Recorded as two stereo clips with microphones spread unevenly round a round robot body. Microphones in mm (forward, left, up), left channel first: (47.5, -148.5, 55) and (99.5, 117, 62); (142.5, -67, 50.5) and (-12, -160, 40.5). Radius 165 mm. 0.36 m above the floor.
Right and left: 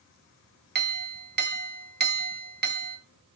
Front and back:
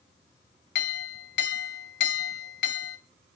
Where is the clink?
30° left, 1.6 m.